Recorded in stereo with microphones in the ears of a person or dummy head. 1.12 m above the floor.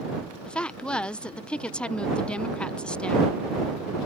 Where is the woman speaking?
5° left (ahead or behind).